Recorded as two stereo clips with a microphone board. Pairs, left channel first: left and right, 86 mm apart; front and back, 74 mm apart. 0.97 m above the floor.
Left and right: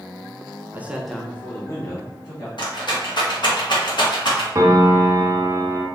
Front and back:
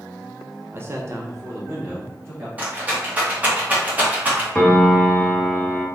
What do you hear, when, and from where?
0.7 s a man speaking: 140° right, 0.5 m; by 2.5 s 120° left, 1.1 m
2.6 s a rattle: 110° left, 1.0 m
4.5 s a piano: 75° right, 0.6 m